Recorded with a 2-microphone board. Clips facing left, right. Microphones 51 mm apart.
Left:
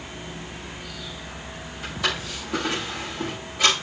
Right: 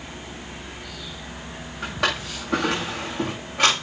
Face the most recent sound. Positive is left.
turn(degrees=-85)